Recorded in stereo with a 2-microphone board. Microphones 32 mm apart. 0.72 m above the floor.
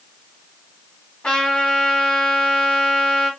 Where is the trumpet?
30° left (ahead or behind), 1.7 m.